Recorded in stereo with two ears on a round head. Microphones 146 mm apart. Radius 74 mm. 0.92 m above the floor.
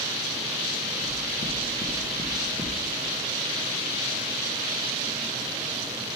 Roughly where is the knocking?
Left.